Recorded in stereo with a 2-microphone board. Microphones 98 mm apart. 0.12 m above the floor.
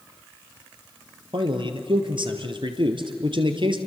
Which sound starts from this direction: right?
A man speaking, at 1.3 s.